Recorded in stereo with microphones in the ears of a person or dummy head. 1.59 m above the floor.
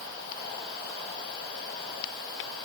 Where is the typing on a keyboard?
I don't hear typing on a keyboard.